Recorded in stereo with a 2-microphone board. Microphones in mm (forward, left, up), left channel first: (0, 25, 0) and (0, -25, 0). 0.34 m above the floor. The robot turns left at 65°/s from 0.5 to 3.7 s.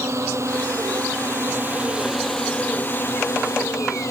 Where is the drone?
65° right; by 4.1 s 85° left.